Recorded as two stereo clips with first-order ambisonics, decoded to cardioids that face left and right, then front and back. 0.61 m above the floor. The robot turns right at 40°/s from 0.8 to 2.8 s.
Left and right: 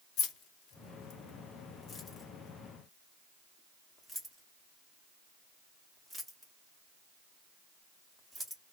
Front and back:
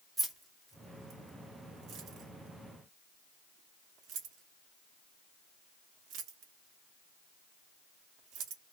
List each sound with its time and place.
0.2 s keys jangling: 100° left, 0.8 m; by 8.6 s straight behind, 0.8 m